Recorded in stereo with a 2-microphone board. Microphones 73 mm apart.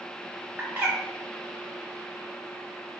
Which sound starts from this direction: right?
A bird, at 0.6 s.